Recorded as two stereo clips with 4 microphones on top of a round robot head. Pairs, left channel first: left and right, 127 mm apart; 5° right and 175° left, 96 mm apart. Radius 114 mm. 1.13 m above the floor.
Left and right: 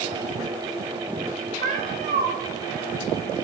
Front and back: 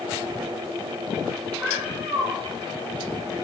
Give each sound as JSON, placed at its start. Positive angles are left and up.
{"t": 1.6, "sound": "a cat meowing", "azimuth_deg": -105, "distance_m": 3.0}